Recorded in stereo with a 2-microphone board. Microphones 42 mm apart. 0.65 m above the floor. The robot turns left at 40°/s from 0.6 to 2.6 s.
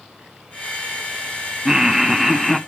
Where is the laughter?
15° right (ahead or behind), 0.7 m; by 2.6 s 5° left (ahead or behind), 0.7 m.